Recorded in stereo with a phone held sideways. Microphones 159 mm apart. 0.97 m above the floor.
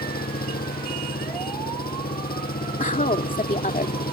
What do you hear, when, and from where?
0.0 s an engine running: 75° left (ahead or behind)
2.8 s a woman speaking: 55° left (ahead or behind)